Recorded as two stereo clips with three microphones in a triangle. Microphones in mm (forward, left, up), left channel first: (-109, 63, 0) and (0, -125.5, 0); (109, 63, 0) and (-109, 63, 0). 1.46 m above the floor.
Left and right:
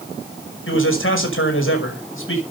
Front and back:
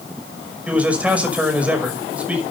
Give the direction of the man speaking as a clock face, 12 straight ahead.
9 o'clock.